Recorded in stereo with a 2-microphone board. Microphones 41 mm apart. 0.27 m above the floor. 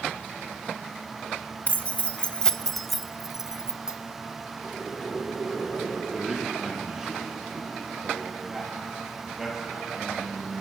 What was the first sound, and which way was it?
Keys jangling, 40° left (ahead or behind).